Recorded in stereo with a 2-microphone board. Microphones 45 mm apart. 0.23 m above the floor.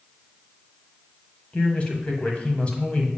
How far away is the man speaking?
About 1.3 m.